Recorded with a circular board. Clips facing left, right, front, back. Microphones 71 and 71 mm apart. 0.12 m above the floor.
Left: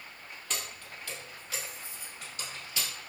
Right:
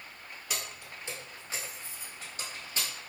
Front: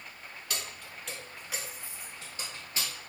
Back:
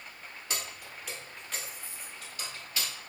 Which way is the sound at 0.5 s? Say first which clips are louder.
Even, back 1 dB; 155° right.